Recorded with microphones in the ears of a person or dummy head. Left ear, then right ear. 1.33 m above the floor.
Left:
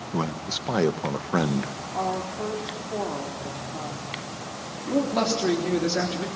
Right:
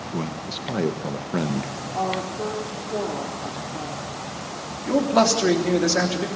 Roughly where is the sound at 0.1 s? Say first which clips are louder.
Left 3 dB; left.